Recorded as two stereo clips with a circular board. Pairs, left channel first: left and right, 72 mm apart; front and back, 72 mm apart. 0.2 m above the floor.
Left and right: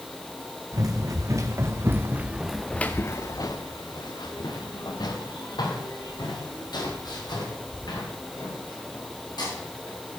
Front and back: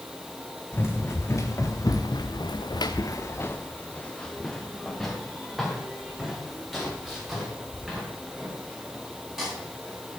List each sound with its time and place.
0.7 s running footsteps: 55° right, 3.5 m; by 10.2 s 100° left, 11.5 m